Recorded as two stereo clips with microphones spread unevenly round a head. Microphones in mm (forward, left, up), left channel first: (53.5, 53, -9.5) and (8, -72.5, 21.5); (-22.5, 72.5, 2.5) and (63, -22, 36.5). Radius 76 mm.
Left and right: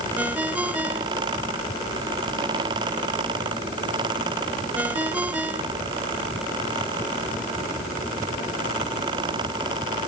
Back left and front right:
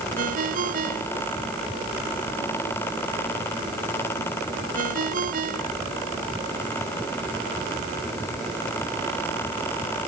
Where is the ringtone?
30° right.